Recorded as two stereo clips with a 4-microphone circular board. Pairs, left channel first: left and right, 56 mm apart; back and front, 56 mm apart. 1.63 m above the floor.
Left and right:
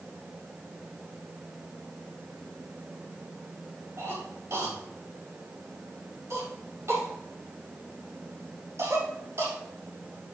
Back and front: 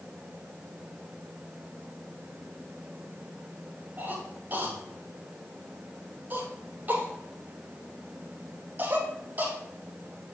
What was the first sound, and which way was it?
A cough, 55° right.